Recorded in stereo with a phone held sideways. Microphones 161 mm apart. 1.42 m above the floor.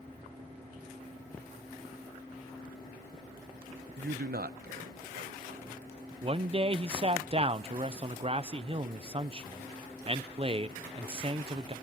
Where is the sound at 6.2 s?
35° right (ahead or behind), 0.8 m.